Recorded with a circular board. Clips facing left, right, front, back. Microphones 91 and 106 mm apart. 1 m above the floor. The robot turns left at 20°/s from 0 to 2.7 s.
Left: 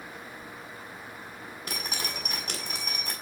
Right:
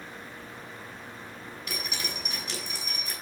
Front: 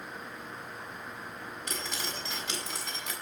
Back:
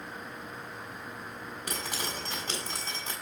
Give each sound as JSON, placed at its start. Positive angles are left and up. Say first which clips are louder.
{"t": 1.7, "sound": "dripping", "louder": "left 1 dB, back 2 dB", "azimuth_deg": 145, "distance_m": 7.5}